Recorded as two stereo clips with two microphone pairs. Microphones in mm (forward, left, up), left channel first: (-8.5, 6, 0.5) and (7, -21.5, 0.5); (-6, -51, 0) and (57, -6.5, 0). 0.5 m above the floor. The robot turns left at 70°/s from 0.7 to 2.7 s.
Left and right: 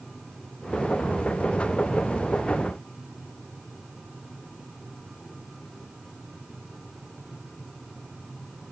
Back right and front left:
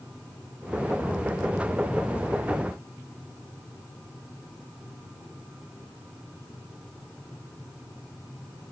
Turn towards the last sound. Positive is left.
No sound to turn to.